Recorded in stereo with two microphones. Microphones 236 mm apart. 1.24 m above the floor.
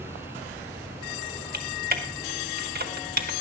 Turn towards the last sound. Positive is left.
turn(degrees=-40)  # may be behind; listen again after turning